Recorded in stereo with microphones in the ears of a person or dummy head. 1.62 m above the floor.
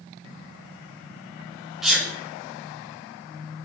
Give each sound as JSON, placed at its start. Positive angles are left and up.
{"t": 1.8, "sound": "a sneeze", "side_deg": -5, "distance_m": 0.8}